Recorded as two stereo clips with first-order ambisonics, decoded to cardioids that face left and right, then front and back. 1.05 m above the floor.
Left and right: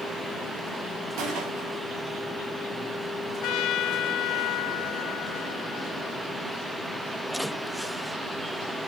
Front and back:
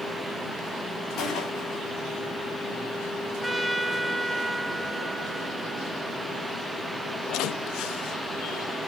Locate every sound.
1.2 s a gunshot: 60° right, 3.5 m
3.4 s a trumpet: 100° left, 0.6 m